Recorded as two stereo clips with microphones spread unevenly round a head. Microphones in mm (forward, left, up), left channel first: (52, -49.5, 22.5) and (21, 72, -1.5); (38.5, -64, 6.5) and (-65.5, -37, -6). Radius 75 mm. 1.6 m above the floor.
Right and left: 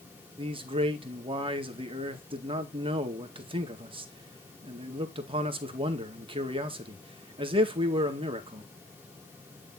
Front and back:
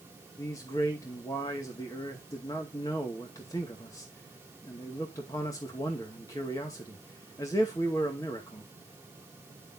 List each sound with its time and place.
0.4 s a man speaking: 55° left, 2.0 m